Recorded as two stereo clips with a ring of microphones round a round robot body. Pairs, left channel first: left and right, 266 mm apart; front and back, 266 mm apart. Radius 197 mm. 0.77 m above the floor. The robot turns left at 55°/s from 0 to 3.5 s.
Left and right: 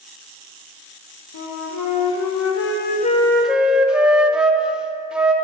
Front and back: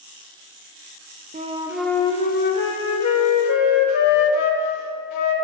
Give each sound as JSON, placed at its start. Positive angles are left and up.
{"t": 1.3, "sound": "a flute", "azimuth_deg": 115, "distance_m": 0.7}